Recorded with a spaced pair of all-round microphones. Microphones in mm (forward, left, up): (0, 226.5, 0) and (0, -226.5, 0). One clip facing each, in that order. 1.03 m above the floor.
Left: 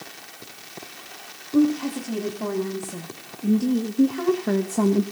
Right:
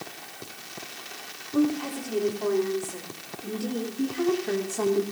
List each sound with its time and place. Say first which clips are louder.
1.5 s a woman speaking: left 5 dB; 50° left (ahead or behind), 2.5 m; by 5.0 s 65° left (ahead or behind), 0.9 m